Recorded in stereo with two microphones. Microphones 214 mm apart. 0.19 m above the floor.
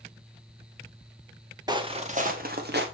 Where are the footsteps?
20° right (ahead or behind), 1.5 m; by 2.8 s 55° right (ahead or behind), 2 m.